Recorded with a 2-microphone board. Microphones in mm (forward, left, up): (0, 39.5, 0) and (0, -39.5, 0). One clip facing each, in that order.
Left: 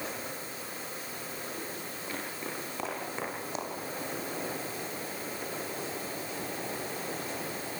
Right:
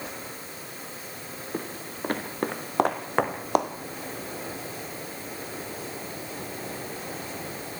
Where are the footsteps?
60° right (ahead or behind), 4.5 m; by 3.7 s 65° right (ahead or behind), 2.5 m.